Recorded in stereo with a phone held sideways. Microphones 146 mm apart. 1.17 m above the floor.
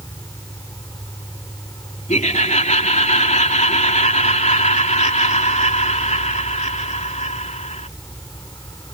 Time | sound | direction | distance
0.0 | an insect | 25° left (ahead or behind) | ?
2.1 | laughter | 55° left (ahead or behind) | ?